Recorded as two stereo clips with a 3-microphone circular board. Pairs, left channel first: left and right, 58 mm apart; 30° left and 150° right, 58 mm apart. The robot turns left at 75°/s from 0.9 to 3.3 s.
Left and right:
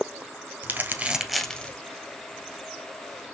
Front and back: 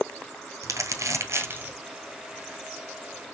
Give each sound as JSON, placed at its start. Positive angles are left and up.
{"t": 0.6, "sound": "crumpling", "azimuth_deg": -145, "distance_m": 1.4}